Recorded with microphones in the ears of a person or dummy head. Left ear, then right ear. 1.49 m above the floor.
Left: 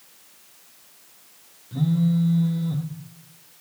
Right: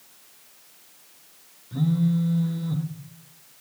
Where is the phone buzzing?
10° right (ahead or behind), 1.1 m.